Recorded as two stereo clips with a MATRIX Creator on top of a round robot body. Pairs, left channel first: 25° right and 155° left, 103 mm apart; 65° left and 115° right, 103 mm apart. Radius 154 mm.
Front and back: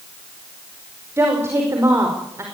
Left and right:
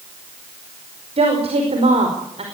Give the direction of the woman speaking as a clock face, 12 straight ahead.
5 o'clock.